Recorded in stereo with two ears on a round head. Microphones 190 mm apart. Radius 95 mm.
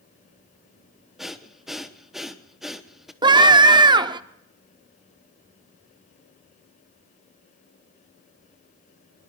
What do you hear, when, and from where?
1.2 s breathing: centre (ahead or behind), 0.7 m
3.2 s a scream: 20° right (ahead or behind), 0.6 m